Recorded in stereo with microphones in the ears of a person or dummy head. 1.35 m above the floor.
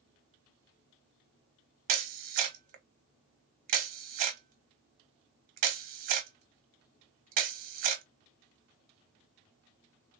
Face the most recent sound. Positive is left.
turn(degrees=-45)  # may be behind; listen again after turning